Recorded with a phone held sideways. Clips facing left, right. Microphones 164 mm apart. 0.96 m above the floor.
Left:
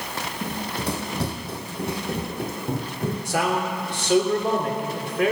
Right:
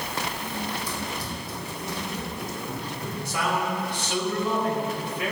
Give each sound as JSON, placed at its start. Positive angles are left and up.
{"t": 0.4, "sound": "running footsteps", "side_deg": 65, "distance_m": 2.5}
{"t": 3.2, "sound": "a man speaking", "side_deg": 75, "distance_m": 3.0}